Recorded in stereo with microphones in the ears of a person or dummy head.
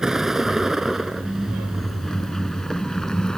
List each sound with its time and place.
0.0 s a vehicle: 5° right (ahead or behind); by 3.4 s 5° left (ahead or behind)